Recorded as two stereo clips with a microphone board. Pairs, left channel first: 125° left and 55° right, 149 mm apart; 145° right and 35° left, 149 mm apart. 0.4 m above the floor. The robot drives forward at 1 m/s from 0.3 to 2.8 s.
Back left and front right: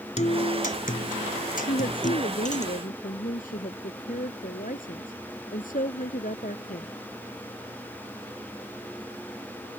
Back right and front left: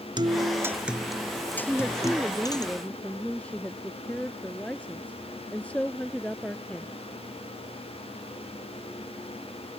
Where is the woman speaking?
130° left; by 6.9 s 135° left.